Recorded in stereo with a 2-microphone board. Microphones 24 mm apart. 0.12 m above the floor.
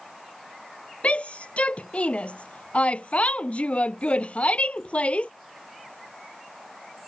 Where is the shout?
60° left (ahead or behind).